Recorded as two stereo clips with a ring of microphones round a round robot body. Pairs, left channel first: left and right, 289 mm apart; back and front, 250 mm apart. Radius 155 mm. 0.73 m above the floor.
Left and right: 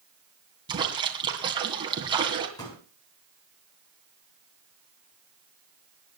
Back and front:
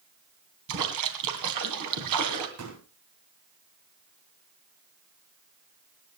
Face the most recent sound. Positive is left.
turn(degrees=10)